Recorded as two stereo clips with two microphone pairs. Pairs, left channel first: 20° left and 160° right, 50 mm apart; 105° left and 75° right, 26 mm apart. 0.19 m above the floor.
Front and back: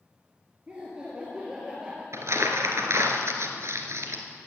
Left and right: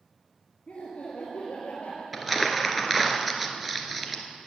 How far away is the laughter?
About 3.5 m.